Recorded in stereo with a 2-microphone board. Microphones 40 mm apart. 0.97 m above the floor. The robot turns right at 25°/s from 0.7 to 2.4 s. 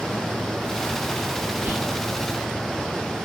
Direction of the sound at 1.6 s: 55° right (ahead or behind).